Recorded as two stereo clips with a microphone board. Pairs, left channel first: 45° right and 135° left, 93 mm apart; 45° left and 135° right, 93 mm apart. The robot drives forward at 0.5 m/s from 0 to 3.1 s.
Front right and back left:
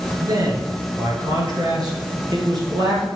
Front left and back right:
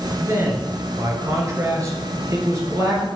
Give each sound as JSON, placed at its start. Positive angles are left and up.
{"t": 0.2, "sound": "a man speaking", "azimuth_deg": 170, "distance_m": 2.0}